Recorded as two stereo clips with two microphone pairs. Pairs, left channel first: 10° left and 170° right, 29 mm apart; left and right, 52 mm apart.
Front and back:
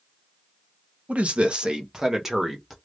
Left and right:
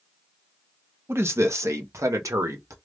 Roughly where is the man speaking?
Behind right.